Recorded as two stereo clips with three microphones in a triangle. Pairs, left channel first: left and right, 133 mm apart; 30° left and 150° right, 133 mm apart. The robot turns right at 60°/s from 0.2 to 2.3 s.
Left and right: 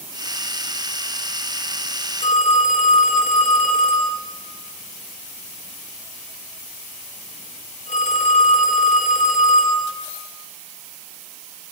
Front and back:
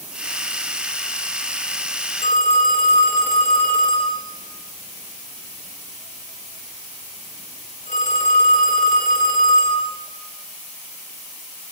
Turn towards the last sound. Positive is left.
turn(degrees=55)